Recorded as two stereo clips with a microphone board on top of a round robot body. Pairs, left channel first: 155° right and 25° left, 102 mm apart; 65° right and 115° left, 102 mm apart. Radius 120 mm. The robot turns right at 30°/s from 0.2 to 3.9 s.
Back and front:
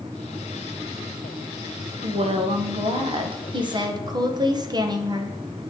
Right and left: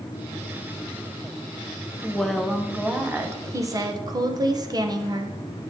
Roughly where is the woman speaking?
Ahead.